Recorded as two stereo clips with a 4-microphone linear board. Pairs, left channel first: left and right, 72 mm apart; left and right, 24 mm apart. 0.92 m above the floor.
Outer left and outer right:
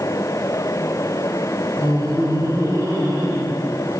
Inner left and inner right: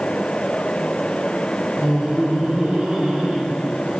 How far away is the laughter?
About 3 m.